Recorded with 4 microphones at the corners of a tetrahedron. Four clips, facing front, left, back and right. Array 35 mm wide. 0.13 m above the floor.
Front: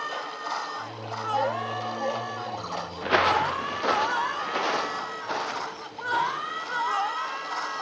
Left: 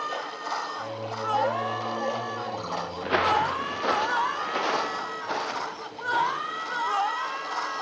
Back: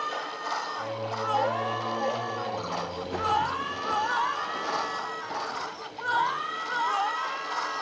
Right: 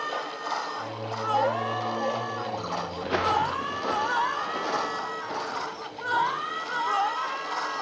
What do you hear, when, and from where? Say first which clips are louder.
0.8 s singing: even, back 3 dB; 160° left, 8 m
3.0 s footsteps: left 2 dB, front 6 dB; 15° left, 0.7 m; by 6.8 s 50° left, 4.5 m